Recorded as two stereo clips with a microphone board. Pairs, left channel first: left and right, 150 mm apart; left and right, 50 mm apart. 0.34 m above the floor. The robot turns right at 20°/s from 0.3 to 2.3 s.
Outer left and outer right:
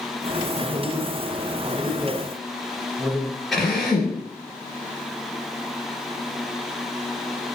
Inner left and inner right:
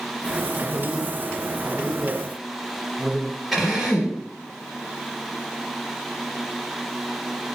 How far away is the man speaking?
About 1.4 m.